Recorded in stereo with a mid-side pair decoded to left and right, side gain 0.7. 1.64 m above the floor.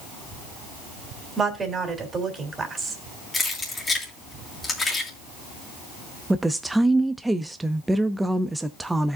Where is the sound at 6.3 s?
10° right, 0.6 m.